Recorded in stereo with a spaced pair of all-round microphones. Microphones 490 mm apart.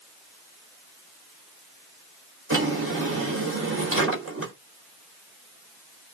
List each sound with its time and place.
2.5 s a drawer: 30° right (ahead or behind), 4.5 m